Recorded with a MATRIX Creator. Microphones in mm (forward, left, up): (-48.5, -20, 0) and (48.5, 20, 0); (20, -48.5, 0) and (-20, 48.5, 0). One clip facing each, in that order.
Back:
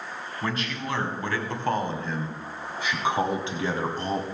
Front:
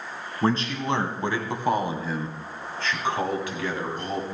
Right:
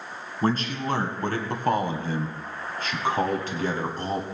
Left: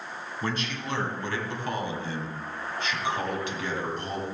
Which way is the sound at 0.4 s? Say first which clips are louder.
Front 7 dB, right 7 dB; 30° right.